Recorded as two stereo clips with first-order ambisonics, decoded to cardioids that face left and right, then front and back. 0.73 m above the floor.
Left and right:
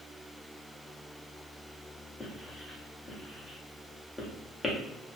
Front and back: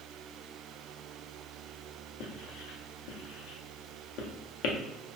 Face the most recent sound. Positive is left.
turn(degrees=10)